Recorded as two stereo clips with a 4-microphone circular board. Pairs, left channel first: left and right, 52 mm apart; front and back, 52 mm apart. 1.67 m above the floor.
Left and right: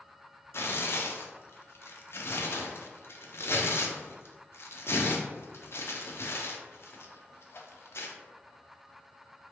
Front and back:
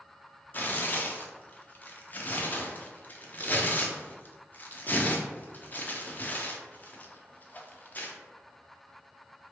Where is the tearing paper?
55° left, 0.5 m.